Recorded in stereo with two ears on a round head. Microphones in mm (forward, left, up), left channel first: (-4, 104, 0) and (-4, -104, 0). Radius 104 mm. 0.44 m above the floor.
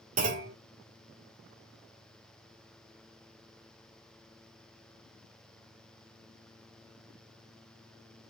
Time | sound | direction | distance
0.2 | a clunk | 35° right (ahead or behind) | 1.5 m